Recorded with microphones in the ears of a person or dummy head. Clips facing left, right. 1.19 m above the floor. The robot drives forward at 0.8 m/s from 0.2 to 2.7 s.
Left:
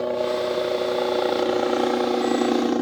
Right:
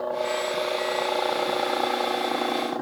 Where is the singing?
No singing in this recording.